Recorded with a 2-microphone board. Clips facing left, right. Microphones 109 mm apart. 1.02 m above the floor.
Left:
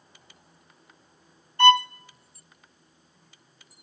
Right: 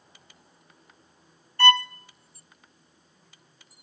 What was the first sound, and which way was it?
A violin, 20° left (ahead or behind).